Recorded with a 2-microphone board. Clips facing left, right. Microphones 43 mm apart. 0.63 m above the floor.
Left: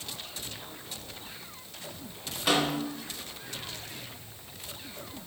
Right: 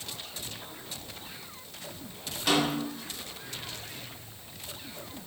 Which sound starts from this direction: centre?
A snare drum, at 2.5 s.